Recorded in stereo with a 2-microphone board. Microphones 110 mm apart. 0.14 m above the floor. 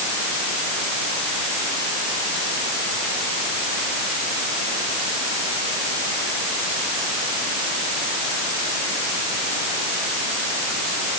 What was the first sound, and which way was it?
Only background noise.